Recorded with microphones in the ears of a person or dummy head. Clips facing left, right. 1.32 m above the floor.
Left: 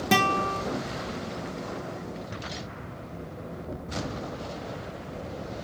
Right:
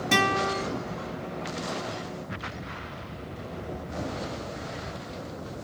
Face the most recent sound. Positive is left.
turn(degrees=40)  # may be behind; listen again after turning